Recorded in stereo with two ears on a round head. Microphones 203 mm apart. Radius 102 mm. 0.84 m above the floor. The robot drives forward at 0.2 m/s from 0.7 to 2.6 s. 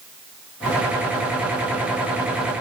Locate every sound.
Only background noise.